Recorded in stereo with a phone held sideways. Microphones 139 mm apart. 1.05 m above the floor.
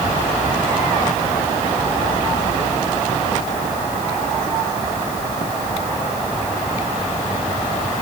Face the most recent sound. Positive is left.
No sound to turn to.